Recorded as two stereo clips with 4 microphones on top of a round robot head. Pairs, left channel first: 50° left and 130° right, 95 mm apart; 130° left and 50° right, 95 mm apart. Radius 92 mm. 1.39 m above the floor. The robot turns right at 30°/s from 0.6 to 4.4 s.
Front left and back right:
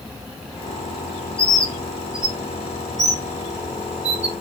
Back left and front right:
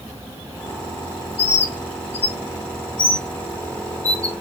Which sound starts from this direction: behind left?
A bird, at 1.4 s.